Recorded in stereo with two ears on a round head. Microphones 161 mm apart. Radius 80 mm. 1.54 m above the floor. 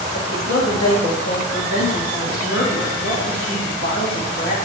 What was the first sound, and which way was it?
A woman speaking, 85° left.